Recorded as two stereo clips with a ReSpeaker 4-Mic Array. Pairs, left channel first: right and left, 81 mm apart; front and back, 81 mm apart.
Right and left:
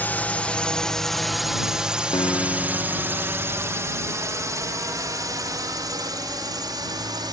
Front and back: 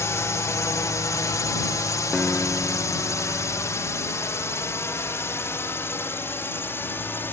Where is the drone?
35° right; by 7.3 s 60° left.